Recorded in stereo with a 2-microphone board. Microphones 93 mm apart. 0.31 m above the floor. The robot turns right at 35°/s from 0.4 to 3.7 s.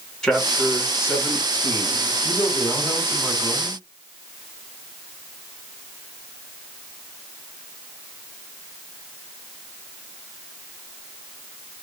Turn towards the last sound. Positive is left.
turn(degrees=180)